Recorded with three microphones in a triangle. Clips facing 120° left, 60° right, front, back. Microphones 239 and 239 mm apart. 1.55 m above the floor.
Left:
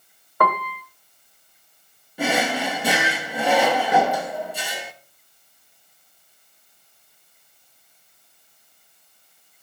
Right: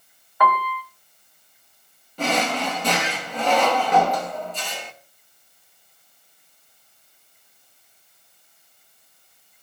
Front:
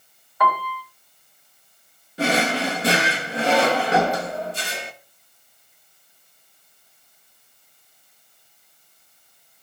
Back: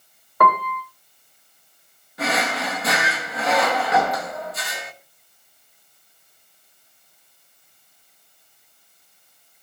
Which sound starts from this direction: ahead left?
A drawer, at 2.2 s.